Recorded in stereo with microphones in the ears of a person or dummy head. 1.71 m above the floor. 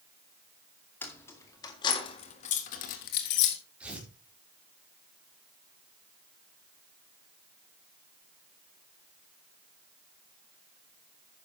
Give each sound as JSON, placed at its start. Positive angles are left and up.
{"t": 1.0, "sound": "keys jangling", "side_deg": 15, "distance_m": 2.5}
{"t": 3.8, "sound": "tearing paper", "side_deg": -5, "distance_m": 4.5}